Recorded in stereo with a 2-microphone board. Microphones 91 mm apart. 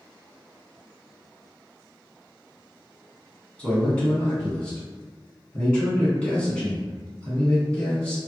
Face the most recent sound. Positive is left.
turn(degrees=15)  # may be behind; listen again after turning